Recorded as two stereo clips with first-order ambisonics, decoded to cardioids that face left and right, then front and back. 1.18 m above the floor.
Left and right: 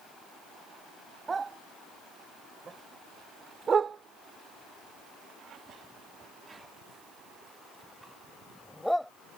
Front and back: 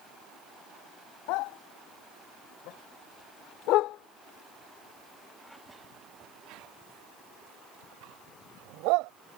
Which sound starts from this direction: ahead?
A dog barking, at 1.3 s.